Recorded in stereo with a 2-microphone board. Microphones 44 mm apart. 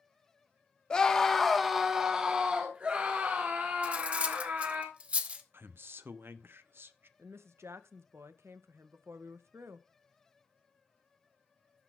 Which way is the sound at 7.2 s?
80° right.